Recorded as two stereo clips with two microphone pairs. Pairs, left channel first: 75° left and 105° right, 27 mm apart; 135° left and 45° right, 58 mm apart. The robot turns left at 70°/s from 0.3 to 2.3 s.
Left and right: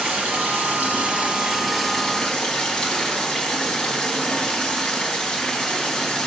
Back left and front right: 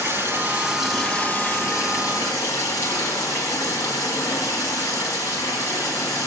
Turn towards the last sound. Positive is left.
turn(degrees=130)